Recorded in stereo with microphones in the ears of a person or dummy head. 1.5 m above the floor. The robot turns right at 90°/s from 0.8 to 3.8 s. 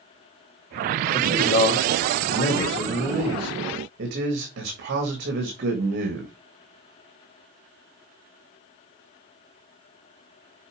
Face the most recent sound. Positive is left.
turn(degrees=-120)